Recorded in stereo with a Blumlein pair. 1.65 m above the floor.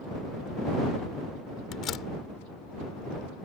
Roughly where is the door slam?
Ahead left.